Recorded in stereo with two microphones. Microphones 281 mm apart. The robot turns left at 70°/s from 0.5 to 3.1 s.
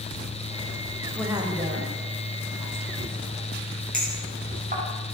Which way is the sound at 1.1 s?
5° left (ahead or behind).